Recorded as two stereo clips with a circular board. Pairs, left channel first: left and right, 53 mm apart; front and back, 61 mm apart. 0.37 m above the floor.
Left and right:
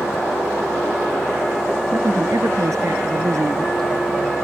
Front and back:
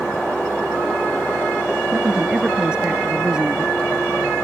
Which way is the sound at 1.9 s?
105° right.